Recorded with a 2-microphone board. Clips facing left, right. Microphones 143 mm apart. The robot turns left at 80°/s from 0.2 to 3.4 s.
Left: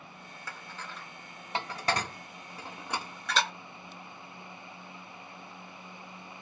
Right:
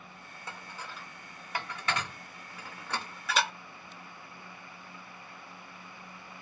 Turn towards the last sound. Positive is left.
turn(degrees=-10)  # may be behind; listen again after turning